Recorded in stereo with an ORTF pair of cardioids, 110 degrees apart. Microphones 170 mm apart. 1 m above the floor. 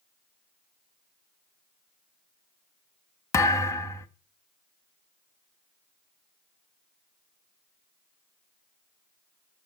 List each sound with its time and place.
3.3 s a thud: 15° left, 1.1 m